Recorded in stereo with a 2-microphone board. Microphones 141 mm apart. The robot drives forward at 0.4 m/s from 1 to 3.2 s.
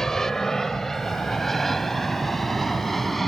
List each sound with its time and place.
0.0 s an aircraft: 5° left (ahead or behind); by 3.3 s centre (ahead or behind)